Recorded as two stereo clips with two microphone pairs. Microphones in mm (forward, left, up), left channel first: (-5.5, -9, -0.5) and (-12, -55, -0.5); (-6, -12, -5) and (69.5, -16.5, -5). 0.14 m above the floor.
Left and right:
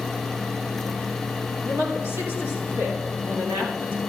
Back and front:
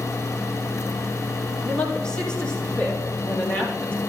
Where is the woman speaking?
105° right, 6 m; by 4.0 s 110° right, 7 m.